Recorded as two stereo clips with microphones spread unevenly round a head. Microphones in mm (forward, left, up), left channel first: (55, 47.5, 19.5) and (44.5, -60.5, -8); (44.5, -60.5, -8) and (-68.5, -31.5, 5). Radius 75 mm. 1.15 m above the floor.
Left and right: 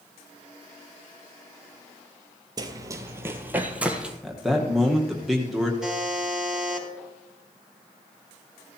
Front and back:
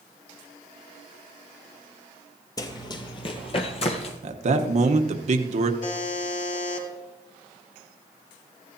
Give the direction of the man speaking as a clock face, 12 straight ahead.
6 o'clock.